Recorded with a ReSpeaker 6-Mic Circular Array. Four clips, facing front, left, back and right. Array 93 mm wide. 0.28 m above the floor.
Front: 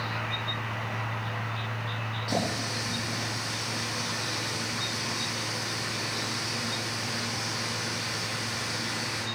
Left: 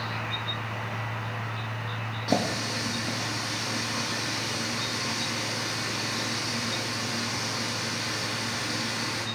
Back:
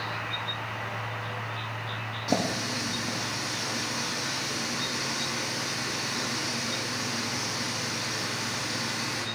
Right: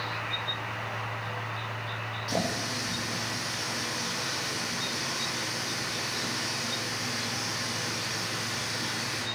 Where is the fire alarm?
No fire alarm in this recording.